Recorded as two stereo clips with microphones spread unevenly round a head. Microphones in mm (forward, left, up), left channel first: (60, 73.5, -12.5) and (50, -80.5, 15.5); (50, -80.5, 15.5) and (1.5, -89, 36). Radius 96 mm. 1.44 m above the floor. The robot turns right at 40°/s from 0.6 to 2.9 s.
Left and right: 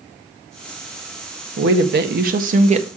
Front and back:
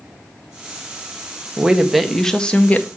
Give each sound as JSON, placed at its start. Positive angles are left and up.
{"t": 1.6, "sound": "a woman speaking", "azimuth_deg": -95, "distance_m": 1.6}